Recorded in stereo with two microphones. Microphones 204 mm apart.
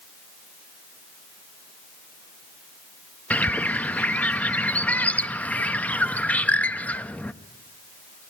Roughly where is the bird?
Centre.